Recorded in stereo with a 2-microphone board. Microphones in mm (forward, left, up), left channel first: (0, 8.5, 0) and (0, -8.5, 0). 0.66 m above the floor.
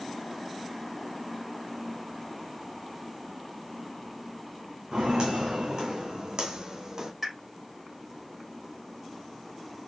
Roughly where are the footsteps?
Right.